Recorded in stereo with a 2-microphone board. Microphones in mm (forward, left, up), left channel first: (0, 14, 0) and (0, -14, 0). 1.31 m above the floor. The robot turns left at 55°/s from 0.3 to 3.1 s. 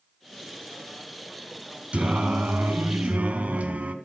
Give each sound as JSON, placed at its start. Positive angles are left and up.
{"t": 1.9, "sound": "singing", "azimuth_deg": -45, "distance_m": 2.5}